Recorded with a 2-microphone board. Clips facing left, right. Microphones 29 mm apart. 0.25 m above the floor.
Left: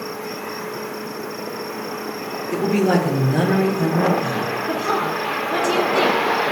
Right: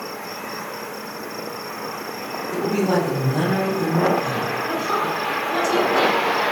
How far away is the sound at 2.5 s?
About 5.5 m.